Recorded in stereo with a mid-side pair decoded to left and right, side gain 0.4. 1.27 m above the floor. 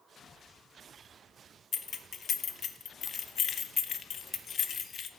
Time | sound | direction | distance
1.7 | keys jangling | 60° left | 0.8 m